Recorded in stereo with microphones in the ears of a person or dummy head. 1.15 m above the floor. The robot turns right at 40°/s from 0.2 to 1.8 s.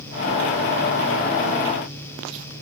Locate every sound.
Only background noise.